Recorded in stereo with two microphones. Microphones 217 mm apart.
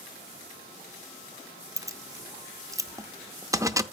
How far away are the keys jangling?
About 0.5 m.